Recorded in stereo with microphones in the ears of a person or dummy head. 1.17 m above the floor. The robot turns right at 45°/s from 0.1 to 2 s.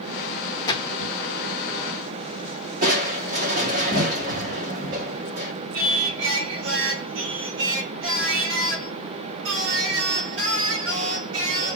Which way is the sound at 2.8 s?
50° right (ahead or behind).